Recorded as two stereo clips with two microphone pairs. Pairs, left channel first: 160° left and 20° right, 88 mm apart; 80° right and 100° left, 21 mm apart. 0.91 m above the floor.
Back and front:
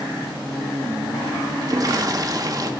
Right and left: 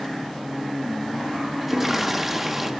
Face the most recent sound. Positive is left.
turn(degrees=20)